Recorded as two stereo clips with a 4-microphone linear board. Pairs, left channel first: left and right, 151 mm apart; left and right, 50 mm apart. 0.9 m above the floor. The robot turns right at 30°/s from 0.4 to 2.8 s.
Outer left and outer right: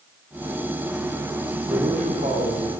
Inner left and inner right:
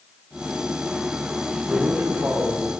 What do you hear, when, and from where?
1.7 s a man speaking: 125° right, 3 m; by 2.7 s 90° right, 3 m